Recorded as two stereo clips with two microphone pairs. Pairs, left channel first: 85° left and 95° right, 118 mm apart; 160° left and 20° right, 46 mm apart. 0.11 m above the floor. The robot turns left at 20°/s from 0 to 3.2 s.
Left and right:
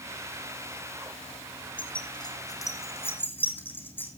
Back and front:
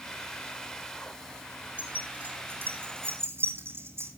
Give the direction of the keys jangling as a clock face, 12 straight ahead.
11 o'clock.